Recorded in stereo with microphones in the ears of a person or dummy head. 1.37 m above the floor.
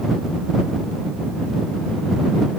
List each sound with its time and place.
Only background noise.